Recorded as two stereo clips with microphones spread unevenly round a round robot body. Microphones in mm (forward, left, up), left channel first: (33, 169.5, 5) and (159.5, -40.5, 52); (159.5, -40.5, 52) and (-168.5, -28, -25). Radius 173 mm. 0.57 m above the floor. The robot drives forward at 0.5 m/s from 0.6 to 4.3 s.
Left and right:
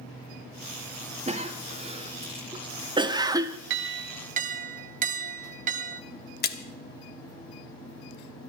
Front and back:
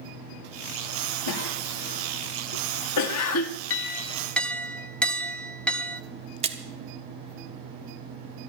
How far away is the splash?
About 1.0 m.